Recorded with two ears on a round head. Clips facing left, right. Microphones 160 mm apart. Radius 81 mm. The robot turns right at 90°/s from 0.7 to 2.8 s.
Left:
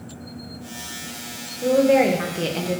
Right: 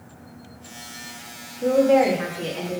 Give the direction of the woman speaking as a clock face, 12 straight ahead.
12 o'clock.